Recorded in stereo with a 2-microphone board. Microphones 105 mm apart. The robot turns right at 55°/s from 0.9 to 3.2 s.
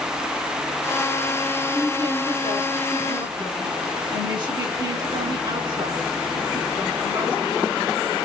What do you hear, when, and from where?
1.7 s a woman speaking: 140° right, 1.8 m; by 8.2 s 55° right, 1.8 m